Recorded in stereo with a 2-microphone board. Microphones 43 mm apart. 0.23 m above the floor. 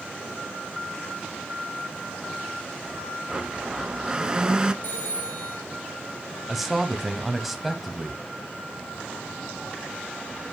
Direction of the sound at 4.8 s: 45° left (ahead or behind).